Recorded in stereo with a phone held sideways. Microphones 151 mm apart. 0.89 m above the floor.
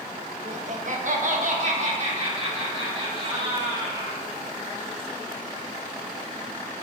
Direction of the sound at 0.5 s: 50° right (ahead or behind).